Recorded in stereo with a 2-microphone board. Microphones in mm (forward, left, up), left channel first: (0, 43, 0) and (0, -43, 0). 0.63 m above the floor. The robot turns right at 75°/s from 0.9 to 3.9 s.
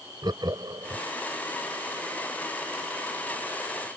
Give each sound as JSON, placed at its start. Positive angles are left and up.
{"t": 0.2, "sound": "laughter", "side_deg": -50}